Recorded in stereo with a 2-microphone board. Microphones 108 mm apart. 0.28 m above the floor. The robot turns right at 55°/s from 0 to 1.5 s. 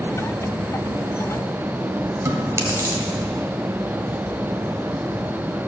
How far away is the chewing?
About 1.4 m.